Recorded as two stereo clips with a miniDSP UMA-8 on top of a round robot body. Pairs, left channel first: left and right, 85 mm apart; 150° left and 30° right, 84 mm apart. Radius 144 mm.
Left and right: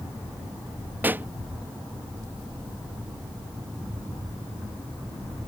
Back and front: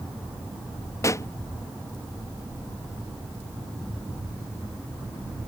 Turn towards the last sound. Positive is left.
turn(degrees=-160)